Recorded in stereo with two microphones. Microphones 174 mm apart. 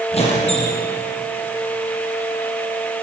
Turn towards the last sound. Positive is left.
turn(degrees=35)  # may be behind; listen again after turning